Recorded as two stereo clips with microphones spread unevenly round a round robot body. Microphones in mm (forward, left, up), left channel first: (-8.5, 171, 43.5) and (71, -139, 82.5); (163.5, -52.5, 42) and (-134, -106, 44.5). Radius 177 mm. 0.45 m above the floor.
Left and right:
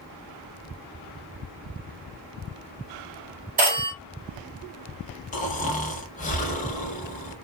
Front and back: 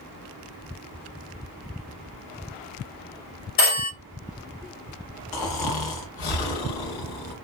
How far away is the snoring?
About 0.7 m.